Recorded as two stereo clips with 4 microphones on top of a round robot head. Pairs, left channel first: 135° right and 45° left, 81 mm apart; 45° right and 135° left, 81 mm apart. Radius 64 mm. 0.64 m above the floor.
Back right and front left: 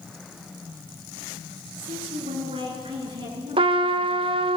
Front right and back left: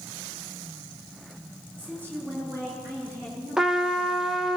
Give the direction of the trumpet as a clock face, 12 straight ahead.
10 o'clock.